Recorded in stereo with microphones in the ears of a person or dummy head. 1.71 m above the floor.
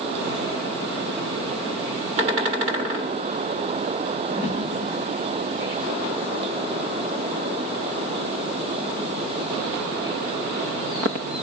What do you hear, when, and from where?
4.3 s a whoosh: 20° right (ahead or behind), 3.5 m